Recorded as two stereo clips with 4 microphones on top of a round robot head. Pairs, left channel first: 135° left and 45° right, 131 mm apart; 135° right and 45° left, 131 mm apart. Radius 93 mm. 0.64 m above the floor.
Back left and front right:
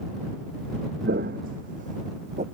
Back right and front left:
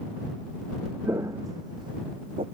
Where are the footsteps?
30° right; by 2.4 s 5° right.